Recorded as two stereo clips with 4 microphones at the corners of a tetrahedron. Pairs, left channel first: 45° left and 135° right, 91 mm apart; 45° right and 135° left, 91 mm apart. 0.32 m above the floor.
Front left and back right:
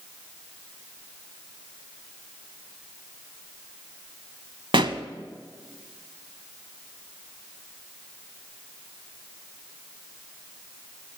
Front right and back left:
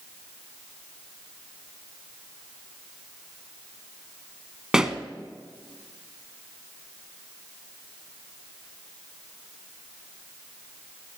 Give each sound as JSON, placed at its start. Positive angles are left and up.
{"t": 4.7, "sound": "a pop", "azimuth_deg": -145, "distance_m": 0.8}